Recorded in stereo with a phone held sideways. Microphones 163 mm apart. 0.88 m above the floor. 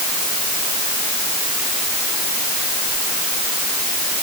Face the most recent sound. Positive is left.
No sound to turn to.